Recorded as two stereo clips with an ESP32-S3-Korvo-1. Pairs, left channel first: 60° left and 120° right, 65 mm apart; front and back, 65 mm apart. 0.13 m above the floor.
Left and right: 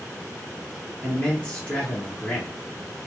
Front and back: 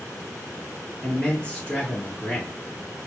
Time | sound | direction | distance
1.0 | a man speaking | 35° left | 1.3 m